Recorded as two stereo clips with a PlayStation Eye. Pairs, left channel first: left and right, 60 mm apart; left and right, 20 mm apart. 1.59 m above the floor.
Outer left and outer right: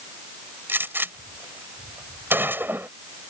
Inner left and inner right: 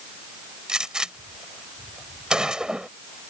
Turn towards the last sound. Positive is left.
turn(degrees=-40)  # may be behind; listen again after turning